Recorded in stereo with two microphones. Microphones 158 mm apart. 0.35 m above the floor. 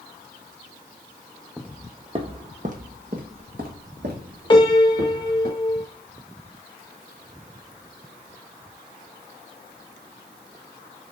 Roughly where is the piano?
Left.